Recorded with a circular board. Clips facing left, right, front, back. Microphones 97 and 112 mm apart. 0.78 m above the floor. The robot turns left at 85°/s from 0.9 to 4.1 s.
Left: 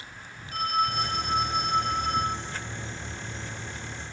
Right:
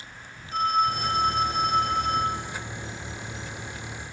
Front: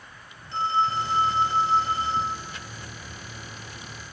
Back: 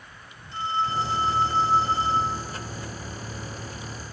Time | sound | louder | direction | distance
0.5 | a phone ringing | right 3 dB, front 2 dB | 20° right | 1.6 m